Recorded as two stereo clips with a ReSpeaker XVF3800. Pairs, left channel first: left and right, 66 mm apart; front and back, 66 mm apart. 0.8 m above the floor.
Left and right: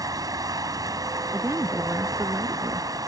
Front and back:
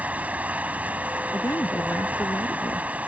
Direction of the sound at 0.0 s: 115° right.